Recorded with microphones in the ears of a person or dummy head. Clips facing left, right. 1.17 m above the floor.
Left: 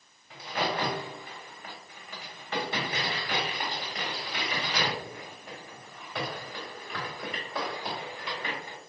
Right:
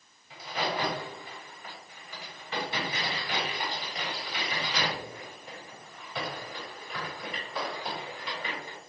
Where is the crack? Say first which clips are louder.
Left 1 dB; 45° left (ahead or behind), 1.8 m.